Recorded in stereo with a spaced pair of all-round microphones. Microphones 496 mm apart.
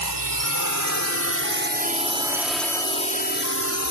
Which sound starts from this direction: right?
A drone, at 0.0 s.